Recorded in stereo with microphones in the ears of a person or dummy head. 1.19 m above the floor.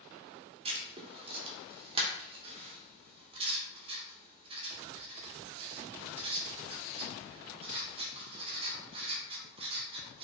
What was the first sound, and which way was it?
Writing, 20° right (ahead or behind).